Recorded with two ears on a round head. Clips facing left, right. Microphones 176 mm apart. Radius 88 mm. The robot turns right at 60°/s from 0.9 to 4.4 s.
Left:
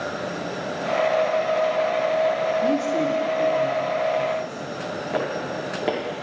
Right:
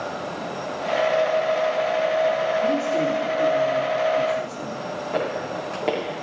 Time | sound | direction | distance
2.6 | a man speaking | 145° left | 2 m
5.1 | footsteps | 5° left (ahead or behind) | 5.5 m